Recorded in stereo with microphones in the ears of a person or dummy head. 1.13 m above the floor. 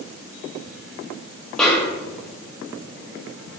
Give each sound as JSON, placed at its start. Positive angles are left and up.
{"t": 1.6, "sound": "a snare drum", "side_deg": 0, "distance_m": 1.0}